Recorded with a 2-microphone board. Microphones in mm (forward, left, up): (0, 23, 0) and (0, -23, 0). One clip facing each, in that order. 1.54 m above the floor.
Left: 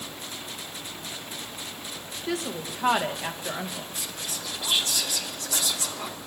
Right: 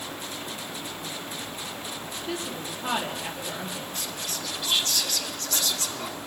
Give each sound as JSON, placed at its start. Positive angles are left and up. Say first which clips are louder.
{"t": 2.3, "sound": "a woman speaking", "louder": "left 4 dB", "side_deg": 85, "distance_m": 2.0}
{"t": 4.0, "sound": "whispering", "louder": "right 2 dB", "side_deg": 15, "distance_m": 1.0}